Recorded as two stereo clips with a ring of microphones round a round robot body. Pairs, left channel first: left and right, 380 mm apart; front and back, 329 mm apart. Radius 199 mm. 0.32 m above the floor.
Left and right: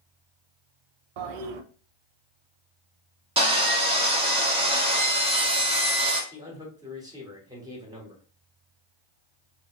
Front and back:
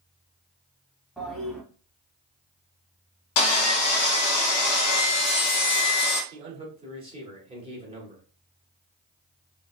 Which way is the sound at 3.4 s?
15° right.